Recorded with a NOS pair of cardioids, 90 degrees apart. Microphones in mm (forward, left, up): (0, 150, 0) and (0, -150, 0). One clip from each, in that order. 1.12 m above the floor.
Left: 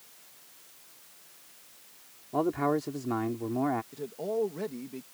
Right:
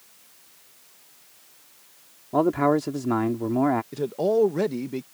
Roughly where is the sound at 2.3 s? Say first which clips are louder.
Right 7 dB; ahead right.